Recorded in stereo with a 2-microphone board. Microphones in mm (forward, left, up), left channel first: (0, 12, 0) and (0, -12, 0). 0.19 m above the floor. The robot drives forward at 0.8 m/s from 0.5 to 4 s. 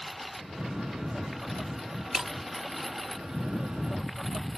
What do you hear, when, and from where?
0.0 s a lawn mower: 5° right (ahead or behind)
2.1 s breaking glass: 20° right (ahead or behind)